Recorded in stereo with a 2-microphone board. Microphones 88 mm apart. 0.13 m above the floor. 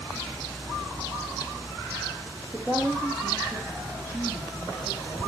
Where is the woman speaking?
30° right (ahead or behind), 3 m; by 5.3 s 40° right (ahead or behind), 5 m.